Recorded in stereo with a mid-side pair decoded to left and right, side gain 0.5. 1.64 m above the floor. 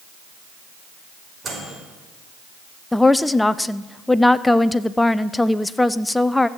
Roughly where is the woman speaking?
Ahead.